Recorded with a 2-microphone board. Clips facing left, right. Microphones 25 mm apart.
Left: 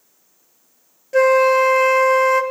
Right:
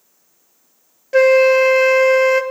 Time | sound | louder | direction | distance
1.1 | a flute | right 2 dB | 25° right (ahead or behind) | 1.0 m